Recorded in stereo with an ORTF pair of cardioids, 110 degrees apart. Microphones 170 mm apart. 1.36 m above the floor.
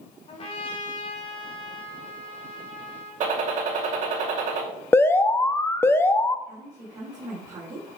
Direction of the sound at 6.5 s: 25° right.